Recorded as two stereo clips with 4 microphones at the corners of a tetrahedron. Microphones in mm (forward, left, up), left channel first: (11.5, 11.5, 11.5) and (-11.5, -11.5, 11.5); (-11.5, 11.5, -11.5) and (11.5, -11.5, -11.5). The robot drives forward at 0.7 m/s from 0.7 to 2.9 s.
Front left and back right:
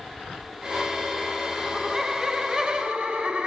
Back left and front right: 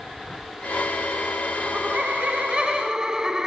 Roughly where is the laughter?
Ahead right.